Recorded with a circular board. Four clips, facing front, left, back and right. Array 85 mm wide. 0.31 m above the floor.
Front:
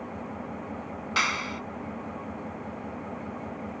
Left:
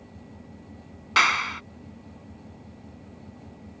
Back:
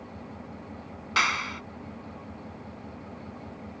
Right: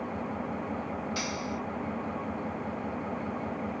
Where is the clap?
95° left.